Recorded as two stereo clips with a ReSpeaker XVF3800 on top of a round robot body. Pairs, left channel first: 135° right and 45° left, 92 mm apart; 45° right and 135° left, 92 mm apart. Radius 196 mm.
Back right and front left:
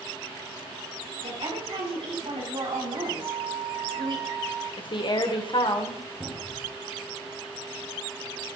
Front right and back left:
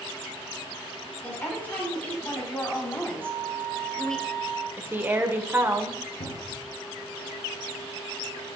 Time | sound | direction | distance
1.2 | a woman speaking | 25° left | 5 m
3.2 | a flute | 25° left | 6.5 m
4.8 | a woman speaking | 160° right | 1.8 m
6.2 | a cupboard door | 45° right | 4 m